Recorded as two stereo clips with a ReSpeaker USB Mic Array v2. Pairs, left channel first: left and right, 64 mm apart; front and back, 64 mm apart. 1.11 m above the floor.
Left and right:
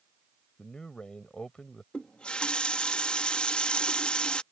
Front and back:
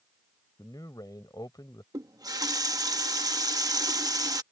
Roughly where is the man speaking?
Ahead.